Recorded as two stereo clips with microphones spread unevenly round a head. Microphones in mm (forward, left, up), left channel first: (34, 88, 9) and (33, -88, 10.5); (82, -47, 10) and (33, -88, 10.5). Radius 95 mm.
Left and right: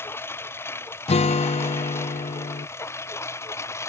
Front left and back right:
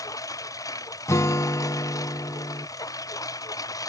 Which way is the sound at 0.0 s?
10° left.